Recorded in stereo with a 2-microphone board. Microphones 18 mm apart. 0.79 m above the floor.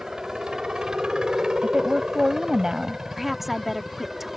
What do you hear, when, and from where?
0.0 s a helicopter: 65° right (ahead or behind); by 4.4 s 35° right (ahead or behind)
1.6 s a woman speaking: 45° right (ahead or behind)
3.2 s a woman speaking: 10° right (ahead or behind)